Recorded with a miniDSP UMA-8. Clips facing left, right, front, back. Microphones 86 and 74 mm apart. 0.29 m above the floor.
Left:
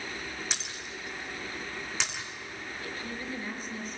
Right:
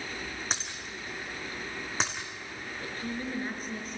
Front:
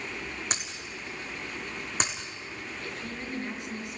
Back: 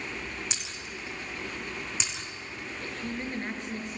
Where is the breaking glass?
40° right, 3 m.